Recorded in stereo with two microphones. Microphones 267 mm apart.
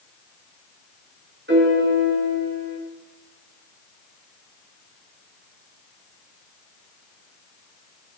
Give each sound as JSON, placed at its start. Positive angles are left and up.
{"t": 1.5, "sound": "a piano", "side_deg": -45, "distance_m": 5.0}